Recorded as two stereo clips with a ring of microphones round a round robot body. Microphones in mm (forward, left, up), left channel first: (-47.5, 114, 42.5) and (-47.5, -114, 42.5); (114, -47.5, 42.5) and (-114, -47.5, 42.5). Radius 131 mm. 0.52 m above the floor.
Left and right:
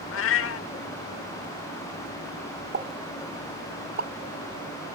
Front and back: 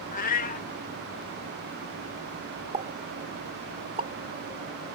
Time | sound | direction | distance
0.1 | a cat meowing | 55° left | ?
2.7 | a pop | 120° right | ?